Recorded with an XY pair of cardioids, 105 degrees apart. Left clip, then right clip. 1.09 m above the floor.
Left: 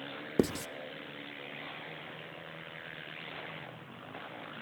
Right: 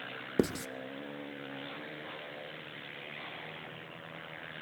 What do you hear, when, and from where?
0.4 s writing: 5° left, 0.7 m